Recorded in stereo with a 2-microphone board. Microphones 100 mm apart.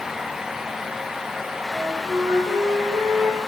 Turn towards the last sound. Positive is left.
turn(degrees=-25)  # may be behind; listen again after turning